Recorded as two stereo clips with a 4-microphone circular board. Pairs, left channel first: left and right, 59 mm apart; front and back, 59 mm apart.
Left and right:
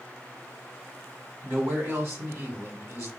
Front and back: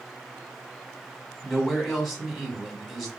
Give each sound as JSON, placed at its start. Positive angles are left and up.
{"t": 1.4, "sound": "a man speaking", "azimuth_deg": -90, "distance_m": 1.3}